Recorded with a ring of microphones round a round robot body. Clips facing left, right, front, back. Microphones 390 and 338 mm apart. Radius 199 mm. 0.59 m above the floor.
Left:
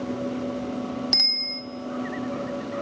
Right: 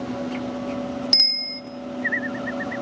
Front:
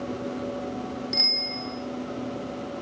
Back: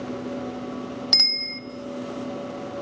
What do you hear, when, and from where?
1.1 s a bicycle bell: 175° right, 3 m